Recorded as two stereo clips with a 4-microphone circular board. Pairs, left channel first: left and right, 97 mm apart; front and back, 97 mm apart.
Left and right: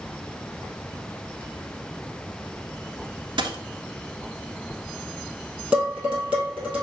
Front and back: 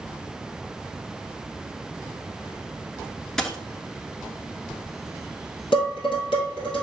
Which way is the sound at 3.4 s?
85° right.